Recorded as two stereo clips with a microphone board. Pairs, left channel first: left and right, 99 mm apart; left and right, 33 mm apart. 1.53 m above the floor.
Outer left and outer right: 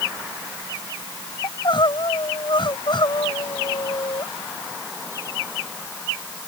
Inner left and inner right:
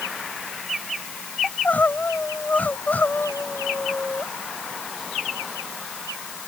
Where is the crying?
55° left (ahead or behind).